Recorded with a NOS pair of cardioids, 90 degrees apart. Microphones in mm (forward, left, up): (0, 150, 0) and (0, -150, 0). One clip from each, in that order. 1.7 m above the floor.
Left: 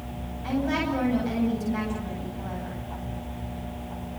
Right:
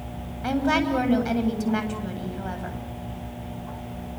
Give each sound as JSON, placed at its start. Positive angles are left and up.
{"t": 0.4, "sound": "a woman speaking", "azimuth_deg": -60, "distance_m": 9.0}